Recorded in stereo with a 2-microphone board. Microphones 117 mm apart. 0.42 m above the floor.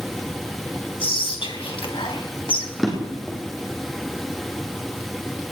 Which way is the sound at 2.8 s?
Centre (ahead or behind).